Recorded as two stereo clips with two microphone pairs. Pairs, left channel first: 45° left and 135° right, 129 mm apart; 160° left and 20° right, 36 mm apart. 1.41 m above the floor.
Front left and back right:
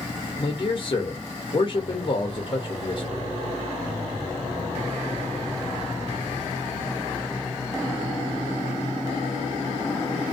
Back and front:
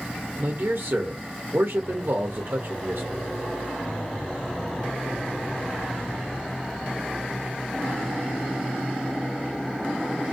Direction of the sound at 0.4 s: 5° right.